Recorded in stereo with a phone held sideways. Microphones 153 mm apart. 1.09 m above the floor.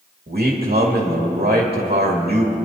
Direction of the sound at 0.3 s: 80° right.